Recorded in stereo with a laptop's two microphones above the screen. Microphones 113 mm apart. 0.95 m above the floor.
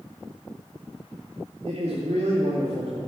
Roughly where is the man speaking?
Right.